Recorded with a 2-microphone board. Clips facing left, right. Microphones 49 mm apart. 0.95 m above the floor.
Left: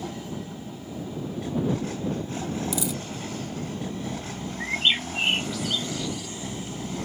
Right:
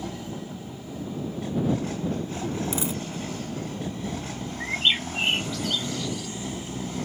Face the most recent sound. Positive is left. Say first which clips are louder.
# even
turn(degrees=5)  # may be behind; listen again after turning